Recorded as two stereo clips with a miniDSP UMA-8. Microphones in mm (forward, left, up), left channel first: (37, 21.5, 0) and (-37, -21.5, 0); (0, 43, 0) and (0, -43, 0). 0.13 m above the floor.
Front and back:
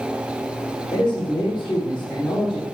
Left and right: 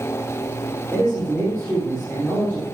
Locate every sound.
0.9 s a man speaking: 15° left, 4 m